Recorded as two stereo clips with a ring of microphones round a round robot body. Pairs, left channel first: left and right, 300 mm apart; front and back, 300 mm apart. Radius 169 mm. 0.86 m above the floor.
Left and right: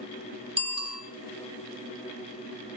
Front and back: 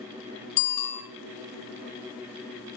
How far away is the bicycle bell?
About 7.5 m.